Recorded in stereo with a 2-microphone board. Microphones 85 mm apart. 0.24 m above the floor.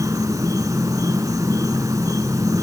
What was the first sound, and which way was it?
An insect, 40° right (ahead or behind).